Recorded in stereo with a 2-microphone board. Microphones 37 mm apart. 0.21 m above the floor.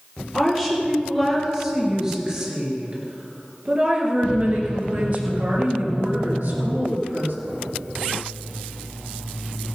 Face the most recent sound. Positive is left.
turn(degrees=-70)  # may be behind; listen again after turning